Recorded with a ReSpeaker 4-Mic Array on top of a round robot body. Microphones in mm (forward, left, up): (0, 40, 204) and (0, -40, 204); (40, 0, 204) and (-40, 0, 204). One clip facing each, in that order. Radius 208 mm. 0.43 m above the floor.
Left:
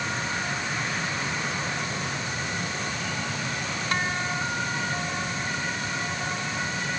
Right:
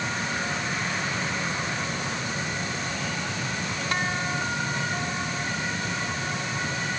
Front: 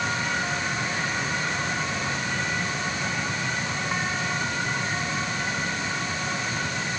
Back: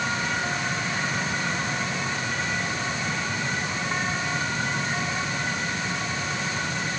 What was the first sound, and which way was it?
Only background noise.